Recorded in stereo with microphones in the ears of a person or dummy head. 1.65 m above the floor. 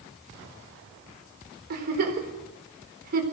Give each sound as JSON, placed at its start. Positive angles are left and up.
{"t": 1.7, "sound": "a giggle", "side_deg": -50, "distance_m": 4.0}